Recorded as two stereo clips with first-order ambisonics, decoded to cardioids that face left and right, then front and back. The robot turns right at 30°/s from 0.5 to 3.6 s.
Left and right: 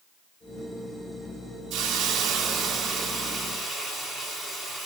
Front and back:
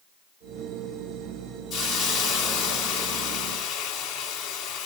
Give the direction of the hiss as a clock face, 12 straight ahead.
2 o'clock.